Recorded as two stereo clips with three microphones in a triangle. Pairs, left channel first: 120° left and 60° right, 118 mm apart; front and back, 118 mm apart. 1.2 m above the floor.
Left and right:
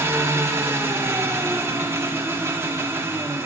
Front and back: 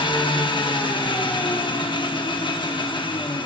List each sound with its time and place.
0.0 s an engine running: 5° right, 0.8 m